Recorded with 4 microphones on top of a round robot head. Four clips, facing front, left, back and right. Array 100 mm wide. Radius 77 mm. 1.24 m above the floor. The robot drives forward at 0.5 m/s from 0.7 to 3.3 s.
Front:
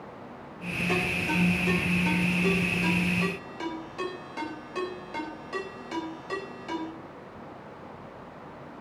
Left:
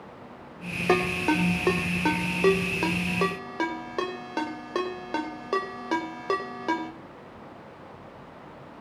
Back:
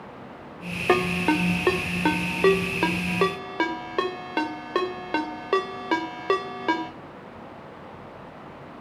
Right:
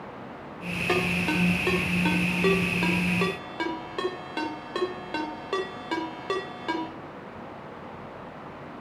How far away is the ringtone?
About 3 m.